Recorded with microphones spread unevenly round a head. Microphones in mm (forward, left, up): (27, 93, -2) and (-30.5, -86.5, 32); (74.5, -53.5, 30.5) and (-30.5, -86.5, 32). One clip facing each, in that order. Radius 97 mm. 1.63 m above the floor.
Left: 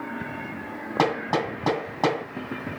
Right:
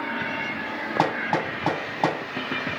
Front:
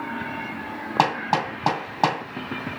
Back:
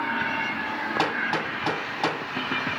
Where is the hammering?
25° right, 2.5 m.